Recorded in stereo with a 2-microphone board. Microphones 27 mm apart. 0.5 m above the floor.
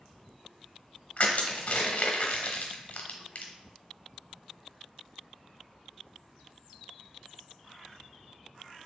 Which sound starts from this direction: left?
Crushing, at 1.2 s.